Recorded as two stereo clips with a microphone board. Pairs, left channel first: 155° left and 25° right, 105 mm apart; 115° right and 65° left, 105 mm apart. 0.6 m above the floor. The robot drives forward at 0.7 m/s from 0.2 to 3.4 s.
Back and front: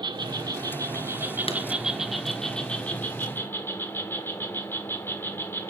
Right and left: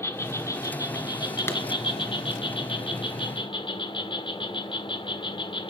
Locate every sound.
0.0 s an insect: 55° right, 1.8 m; by 5.7 s 140° right, 2 m
1.5 s a clap: straight behind, 3.5 m